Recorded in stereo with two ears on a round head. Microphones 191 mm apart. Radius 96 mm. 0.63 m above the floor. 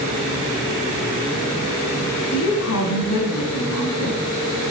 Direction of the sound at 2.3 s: 80° left.